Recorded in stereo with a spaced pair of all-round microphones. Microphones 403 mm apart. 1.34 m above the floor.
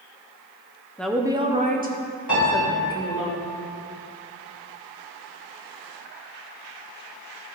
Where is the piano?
75° right (ahead or behind), 3.5 m.